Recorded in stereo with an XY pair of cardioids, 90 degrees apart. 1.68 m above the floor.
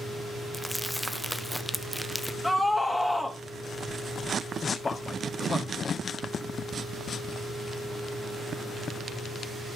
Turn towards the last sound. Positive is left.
turn(degrees=35)